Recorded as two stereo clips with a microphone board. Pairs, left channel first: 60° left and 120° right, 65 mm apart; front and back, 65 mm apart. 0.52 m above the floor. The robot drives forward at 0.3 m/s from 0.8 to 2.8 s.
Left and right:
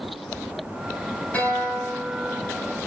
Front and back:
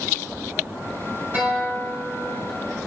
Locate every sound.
1.3 s a guitar: 120° left, 2.5 m; by 2.5 s 130° left, 2.5 m